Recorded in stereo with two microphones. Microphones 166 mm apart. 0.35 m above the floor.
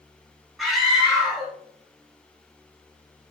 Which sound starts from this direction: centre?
A scream, at 0.6 s.